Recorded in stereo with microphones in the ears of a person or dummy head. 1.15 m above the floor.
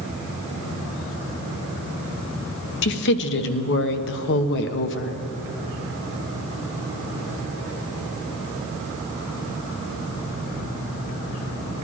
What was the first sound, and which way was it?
A woman speaking, 65° left (ahead or behind).